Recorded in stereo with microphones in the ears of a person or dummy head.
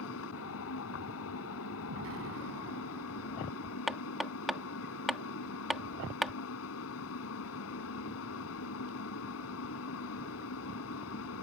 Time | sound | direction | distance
0.0 | a fan | 75° left (ahead or behind) | ?
1.9 | an explosion | 75° right (ahead or behind) | ?
3.9 | hammering | centre (ahead or behind) | ?